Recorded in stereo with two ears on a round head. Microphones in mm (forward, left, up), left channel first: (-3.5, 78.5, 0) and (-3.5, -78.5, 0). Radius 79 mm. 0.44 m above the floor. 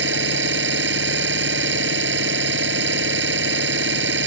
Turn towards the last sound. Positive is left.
turn(degrees=-70)  # may be behind; listen again after turning